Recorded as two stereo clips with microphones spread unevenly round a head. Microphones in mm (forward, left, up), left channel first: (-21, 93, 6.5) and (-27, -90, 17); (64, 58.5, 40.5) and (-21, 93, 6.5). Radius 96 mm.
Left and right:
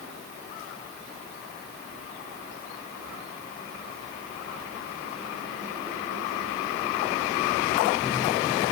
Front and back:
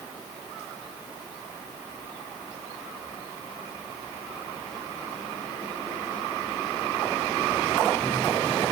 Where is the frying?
No frying in this recording.